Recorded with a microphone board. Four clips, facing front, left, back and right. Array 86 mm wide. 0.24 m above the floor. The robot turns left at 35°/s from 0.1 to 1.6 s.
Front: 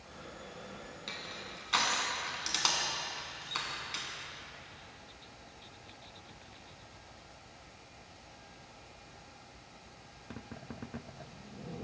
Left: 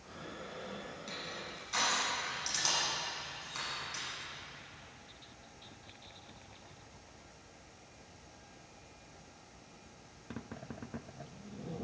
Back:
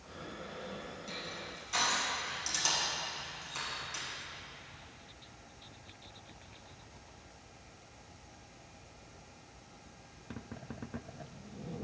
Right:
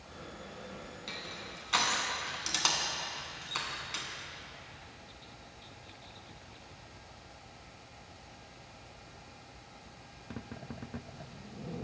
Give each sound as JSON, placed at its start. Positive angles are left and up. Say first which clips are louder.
{"t": 1.1, "sound": "crushing", "louder": "even, back 1 dB", "azimuth_deg": -25, "distance_m": 1.2}